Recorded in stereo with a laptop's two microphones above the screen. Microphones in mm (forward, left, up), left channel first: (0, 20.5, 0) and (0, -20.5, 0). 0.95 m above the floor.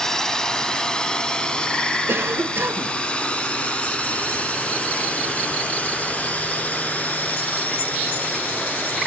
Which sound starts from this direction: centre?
A drone, at 0.0 s.